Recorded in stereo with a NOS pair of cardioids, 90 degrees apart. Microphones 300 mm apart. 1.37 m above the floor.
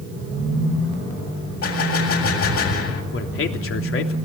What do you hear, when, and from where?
1.6 s a gunshot: 55° left, 7.5 m
3.1 s a man speaking: 50° left, 3 m